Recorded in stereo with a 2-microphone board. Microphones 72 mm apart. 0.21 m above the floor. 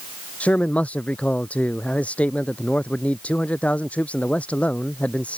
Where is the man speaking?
20° left (ahead or behind).